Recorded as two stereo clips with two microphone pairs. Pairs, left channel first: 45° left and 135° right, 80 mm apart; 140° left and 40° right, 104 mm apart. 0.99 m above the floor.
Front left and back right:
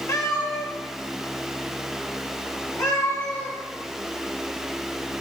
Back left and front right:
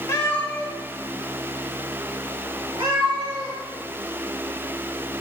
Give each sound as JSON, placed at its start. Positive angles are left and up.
{"t": 0.1, "sound": "a cat meowing", "azimuth_deg": 90, "distance_m": 1.3}